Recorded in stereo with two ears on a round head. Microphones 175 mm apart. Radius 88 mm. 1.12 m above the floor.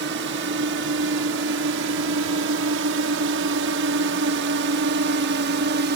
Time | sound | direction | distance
0.0 | a drone | 60° right (ahead or behind) | ?